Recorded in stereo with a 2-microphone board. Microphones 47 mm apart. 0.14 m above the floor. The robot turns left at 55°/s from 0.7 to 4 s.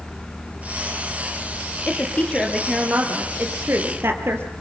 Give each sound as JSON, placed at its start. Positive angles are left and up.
{"t": 1.9, "sound": "a woman speaking", "azimuth_deg": 45, "distance_m": 2.5}